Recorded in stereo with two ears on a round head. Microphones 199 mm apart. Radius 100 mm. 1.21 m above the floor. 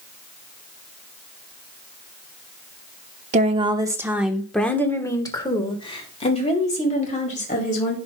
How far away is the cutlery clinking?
No cutlery clinking in this recording.